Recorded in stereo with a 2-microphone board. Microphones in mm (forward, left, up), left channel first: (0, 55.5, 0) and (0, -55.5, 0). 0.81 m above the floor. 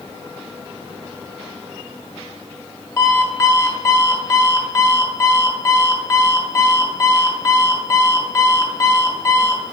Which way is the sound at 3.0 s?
25° left (ahead or behind).